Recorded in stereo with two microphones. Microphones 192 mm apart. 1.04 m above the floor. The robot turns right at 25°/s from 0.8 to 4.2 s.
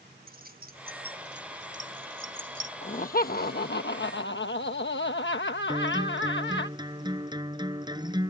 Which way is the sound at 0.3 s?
50° right (ahead or behind).